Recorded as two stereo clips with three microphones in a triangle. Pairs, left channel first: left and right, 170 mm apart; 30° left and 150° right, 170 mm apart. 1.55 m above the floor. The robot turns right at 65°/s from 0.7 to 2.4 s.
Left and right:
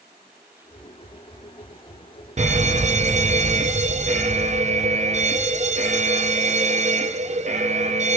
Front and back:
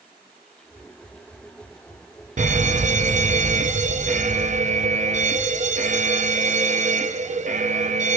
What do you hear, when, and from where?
2.4 s a fire alarm: 125° right, 0.8 m; by 8.2 s 120° right, 0.8 m